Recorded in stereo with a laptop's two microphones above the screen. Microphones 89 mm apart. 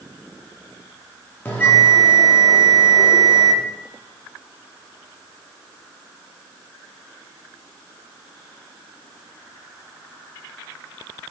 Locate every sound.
1.4 s a bell: 20° left (ahead or behind), 1.0 m